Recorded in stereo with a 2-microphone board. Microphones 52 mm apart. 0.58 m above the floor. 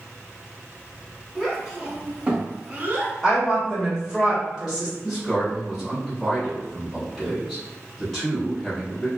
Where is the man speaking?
10° left (ahead or behind), 1.4 m.